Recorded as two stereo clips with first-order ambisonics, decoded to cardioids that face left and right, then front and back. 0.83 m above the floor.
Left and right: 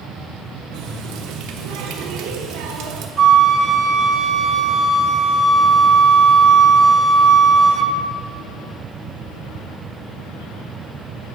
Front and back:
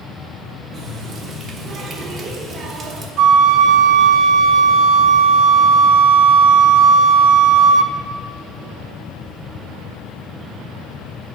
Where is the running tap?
115° right, 1.1 m.